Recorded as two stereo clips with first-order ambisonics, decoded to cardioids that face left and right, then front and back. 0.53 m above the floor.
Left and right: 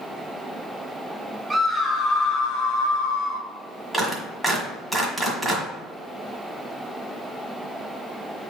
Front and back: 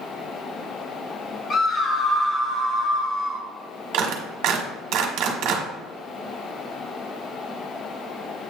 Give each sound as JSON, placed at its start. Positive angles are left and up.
{"t": 1.5, "sound": "a scream", "azimuth_deg": -25, "distance_m": 0.7}
{"t": 3.9, "sound": "a clap", "azimuth_deg": 180, "distance_m": 1.6}